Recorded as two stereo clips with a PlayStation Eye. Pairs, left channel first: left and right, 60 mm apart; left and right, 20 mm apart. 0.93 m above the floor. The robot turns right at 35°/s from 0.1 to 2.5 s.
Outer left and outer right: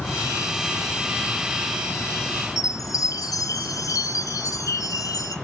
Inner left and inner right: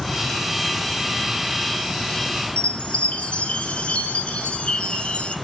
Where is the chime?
70° left (ahead or behind), 2.5 m.